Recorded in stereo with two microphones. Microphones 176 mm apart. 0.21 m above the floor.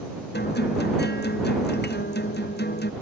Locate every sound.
0.3 s a guitar: 75° left (ahead or behind)